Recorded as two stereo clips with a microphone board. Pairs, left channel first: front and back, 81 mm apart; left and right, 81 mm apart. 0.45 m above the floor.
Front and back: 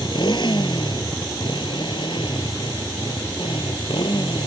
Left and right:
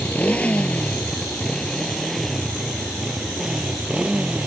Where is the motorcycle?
20° left; by 4.5 s 10° right.